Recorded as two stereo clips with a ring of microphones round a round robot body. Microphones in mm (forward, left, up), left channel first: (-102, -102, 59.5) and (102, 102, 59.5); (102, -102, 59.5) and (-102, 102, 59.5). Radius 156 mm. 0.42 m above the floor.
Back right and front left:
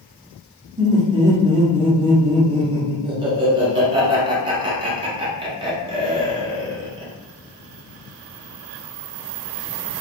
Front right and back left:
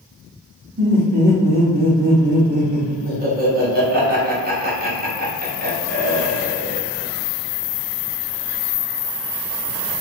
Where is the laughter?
105° left, 1.1 m.